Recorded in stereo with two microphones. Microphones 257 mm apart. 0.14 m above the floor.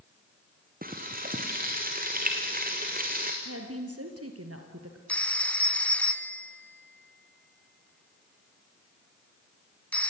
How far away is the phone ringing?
About 0.8 m.